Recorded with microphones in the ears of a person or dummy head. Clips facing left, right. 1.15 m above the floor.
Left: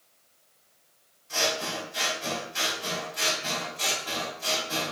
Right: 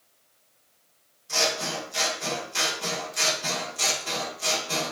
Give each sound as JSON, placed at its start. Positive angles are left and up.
{"t": 1.3, "sound": "scissors", "side_deg": -75, "distance_m": 2.5}